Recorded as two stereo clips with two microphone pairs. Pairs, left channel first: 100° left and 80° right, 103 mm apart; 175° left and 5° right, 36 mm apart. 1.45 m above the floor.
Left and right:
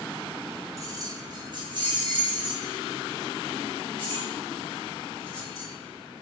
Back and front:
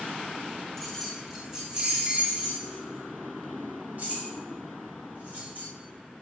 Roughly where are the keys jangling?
Right.